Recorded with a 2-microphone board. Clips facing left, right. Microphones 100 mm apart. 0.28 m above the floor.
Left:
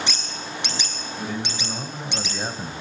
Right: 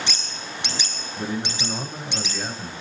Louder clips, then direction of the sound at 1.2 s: Right 2 dB; 30° right (ahead or behind).